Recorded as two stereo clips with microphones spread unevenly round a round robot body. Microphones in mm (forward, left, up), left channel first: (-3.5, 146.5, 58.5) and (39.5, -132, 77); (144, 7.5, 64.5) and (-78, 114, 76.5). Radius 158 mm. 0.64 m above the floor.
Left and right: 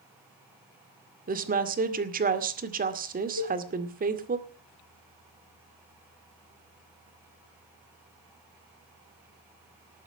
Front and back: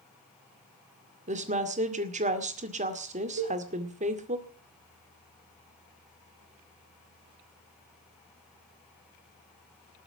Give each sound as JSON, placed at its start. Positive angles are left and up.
{"t": 1.3, "sound": "a woman speaking", "azimuth_deg": -140, "distance_m": 2.0}
{"t": 3.4, "sound": "a cowbell", "azimuth_deg": 115, "distance_m": 4.5}